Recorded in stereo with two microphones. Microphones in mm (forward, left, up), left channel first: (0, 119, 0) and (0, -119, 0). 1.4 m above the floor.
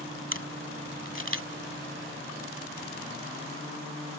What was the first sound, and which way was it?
A camera shutter, 60° right (ahead or behind).